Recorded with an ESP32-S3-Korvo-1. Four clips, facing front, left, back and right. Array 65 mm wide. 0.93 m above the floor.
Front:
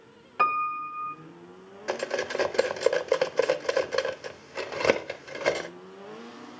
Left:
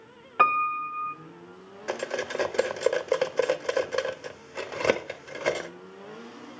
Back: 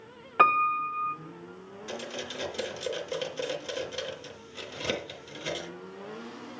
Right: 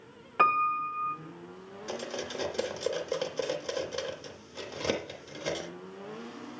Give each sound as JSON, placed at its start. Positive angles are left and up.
{"t": 0.4, "sound": "a piano", "azimuth_deg": 155, "distance_m": 0.9}
{"t": 1.9, "sound": "cutlery clinking", "azimuth_deg": 35, "distance_m": 0.7}